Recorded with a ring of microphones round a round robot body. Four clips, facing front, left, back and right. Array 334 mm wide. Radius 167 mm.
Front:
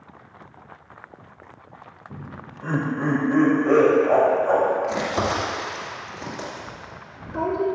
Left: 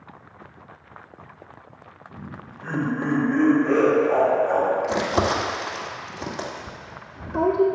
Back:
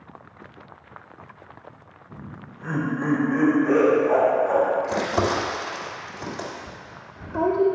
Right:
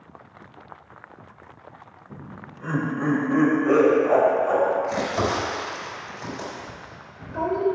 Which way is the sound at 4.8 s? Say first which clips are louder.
Left 2 dB, back 1 dB; 90° left.